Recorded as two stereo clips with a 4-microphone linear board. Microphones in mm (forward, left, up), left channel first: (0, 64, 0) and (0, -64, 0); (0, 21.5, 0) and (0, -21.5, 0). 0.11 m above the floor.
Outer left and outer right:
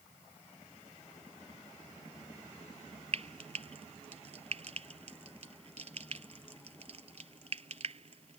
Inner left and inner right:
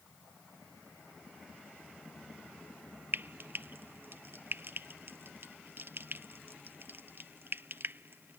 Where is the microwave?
No microwave in this recording.